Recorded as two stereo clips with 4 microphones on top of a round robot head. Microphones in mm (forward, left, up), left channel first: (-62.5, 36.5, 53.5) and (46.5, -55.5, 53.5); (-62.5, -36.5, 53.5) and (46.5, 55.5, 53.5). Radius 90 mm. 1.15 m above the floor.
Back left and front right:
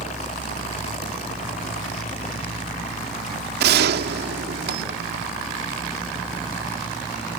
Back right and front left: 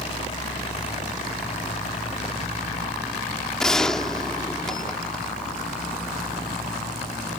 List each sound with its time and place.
0.0 s a helicopter: 175° left; by 7.4 s 175° right
3.6 s a gunshot: 55° right